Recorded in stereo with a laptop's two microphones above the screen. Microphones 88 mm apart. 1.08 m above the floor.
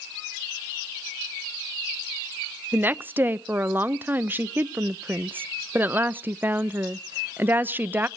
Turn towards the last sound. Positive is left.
turn(degrees=-25)  # may be behind; listen again after turning